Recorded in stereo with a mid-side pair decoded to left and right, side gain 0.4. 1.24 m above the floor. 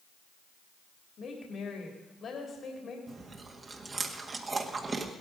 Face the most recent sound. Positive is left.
turn(degrees=-40)